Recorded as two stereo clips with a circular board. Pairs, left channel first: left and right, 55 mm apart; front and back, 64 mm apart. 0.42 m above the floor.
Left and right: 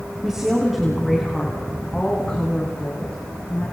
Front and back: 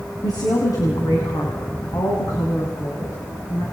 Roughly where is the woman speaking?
Ahead.